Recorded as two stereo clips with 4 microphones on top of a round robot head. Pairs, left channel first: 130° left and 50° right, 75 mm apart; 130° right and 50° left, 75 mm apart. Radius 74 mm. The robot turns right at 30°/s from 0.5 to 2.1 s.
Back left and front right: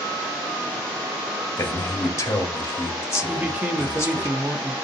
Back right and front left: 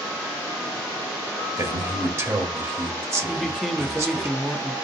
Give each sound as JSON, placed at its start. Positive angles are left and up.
{"t": 1.6, "sound": "a man speaking", "azimuth_deg": 75, "distance_m": 1.0}
{"t": 3.3, "sound": "a man speaking", "azimuth_deg": -40, "distance_m": 0.8}